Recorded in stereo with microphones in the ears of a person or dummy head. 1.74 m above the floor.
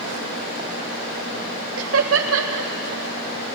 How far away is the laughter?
About 1.8 m.